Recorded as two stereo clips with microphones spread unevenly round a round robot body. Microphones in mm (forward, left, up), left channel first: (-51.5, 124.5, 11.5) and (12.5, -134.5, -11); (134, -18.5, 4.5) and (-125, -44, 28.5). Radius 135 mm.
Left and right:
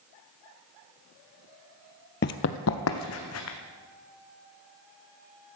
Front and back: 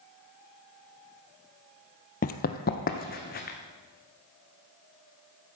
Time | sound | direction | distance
2.2 | running footsteps | 65° left | 0.6 m